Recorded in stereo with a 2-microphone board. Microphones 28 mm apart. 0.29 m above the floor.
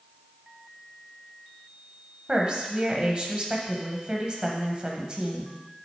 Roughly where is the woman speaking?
Right.